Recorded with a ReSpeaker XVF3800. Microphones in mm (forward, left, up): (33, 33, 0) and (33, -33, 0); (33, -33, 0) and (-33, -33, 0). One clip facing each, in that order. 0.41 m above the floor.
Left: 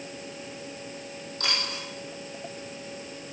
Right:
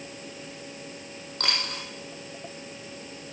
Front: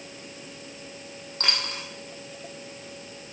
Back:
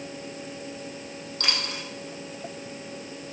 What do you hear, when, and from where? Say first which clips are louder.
1.4 s a dropped coin: right 1 dB, front 1 dB; 55° right, 3.5 m